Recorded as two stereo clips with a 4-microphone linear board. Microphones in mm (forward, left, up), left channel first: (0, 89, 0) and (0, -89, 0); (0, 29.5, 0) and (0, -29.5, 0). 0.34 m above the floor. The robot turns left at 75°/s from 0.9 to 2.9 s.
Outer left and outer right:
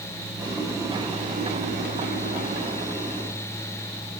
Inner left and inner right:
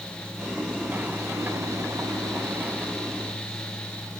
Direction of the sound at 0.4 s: 15° right.